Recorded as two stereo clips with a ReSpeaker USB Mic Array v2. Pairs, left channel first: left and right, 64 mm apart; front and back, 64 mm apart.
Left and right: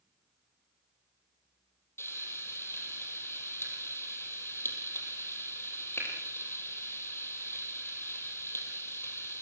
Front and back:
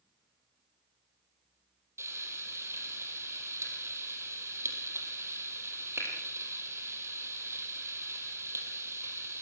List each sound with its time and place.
2.0 s frying: 140° left, 4 m